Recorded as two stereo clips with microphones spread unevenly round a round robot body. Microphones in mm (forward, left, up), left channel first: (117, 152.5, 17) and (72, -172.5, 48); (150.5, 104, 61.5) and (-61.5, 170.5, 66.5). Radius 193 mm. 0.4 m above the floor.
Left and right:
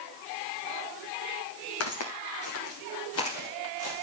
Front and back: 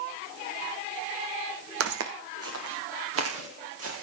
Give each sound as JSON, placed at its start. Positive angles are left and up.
{"t": 1.8, "sound": "footsteps", "azimuth_deg": 140, "distance_m": 1.7}